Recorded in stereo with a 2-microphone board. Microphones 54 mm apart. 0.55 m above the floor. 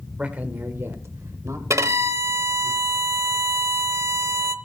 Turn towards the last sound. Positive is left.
turn(degrees=-65)  # may be behind; listen again after turning